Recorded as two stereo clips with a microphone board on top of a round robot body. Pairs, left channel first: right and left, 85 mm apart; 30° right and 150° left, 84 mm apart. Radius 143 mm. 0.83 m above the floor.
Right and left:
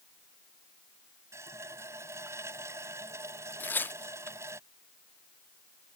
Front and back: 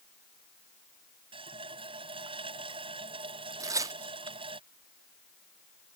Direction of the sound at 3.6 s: 160° right.